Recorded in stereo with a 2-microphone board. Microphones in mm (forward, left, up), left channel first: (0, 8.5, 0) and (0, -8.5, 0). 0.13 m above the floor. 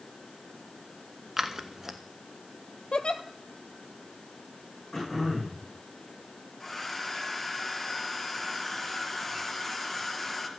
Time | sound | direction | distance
1.4 | scissors | 25° right (ahead or behind) | 0.9 m
2.9 | a giggle | 75° left (ahead or behind) | 0.7 m
4.9 | throat clearing | 15° left (ahead or behind) | 6.5 m
6.6 | a hair dryer | 10° left (ahead or behind) | 1.5 m